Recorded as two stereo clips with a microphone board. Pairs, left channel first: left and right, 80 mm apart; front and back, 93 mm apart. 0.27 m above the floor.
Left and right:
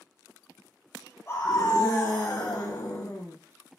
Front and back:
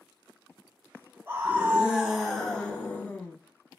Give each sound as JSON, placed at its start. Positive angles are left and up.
{"t": 1.3, "sound": "a scream", "azimuth_deg": 120, "distance_m": 1.5}